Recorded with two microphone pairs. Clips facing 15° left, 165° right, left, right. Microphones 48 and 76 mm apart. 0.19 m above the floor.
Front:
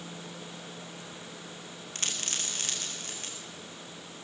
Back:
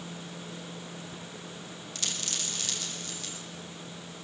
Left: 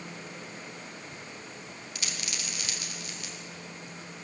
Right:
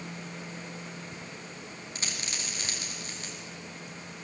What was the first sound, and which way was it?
A dropped coin, 35° right.